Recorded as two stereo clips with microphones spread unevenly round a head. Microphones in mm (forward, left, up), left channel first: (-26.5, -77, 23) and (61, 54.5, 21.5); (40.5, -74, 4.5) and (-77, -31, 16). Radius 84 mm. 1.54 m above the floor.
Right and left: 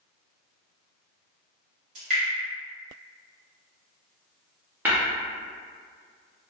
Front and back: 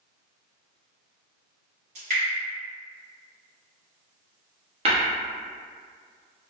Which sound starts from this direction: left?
Dripping, at 1.9 s.